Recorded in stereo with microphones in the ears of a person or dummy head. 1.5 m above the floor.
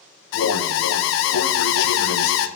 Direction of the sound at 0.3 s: 65° left (ahead or behind).